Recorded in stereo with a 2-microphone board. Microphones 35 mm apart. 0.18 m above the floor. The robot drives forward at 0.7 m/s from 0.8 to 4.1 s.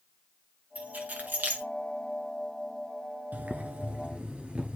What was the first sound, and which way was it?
Keys jangling, 45° right (ahead or behind).